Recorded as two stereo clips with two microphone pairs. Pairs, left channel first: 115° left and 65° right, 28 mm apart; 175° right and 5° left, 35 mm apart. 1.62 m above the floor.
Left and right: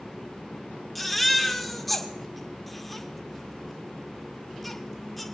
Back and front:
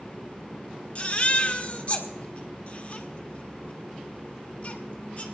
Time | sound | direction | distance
0.9 | a baby crying | 165° right | 1.2 m